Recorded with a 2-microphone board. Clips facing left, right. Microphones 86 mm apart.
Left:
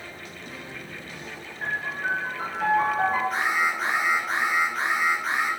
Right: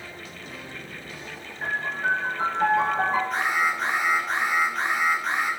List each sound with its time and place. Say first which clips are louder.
1.6 s a piano: right 2 dB; 20° right (ahead or behind), 6.5 m
3.3 s an alarm: even; centre (ahead or behind), 5 m